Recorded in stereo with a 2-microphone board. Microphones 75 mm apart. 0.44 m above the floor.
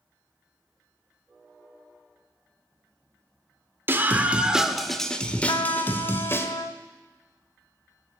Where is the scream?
30° right (ahead or behind), 0.9 m; by 6.5 s 35° left (ahead or behind), 1.4 m.